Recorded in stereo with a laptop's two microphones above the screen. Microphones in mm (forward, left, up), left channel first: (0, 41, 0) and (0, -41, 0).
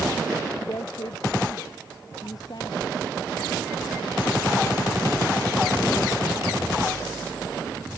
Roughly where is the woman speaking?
Left.